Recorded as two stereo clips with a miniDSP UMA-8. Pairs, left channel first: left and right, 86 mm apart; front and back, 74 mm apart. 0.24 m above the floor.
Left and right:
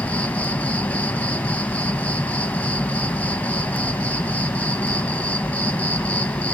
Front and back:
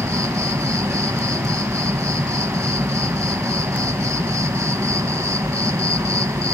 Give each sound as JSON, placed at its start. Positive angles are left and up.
{"t": 0.0, "sound": "an insect", "azimuth_deg": 155, "distance_m": 0.7}